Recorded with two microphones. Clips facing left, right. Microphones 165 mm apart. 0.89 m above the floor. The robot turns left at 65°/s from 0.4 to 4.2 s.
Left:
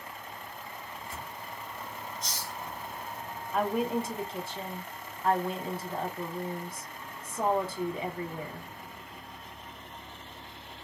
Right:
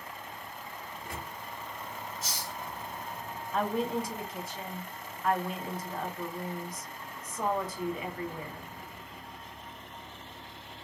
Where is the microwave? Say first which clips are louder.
Right 2 dB; 85° right, 0.7 m; by 1.3 s 50° right (ahead or behind), 0.7 m.